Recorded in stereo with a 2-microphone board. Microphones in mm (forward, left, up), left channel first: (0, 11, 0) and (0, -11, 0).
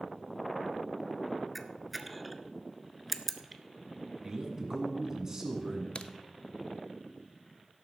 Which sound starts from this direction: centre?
A camera shutter, at 1.6 s.